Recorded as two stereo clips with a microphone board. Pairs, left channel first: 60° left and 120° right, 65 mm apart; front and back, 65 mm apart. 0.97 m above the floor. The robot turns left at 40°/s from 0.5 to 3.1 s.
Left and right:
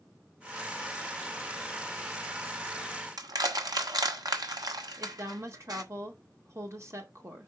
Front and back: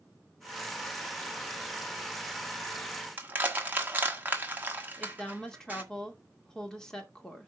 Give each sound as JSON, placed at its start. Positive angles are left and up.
{"t": 3.2, "sound": "crushing", "azimuth_deg": -115, "distance_m": 1.3}
{"t": 5.0, "sound": "a woman speaking", "azimuth_deg": -80, "distance_m": 2.0}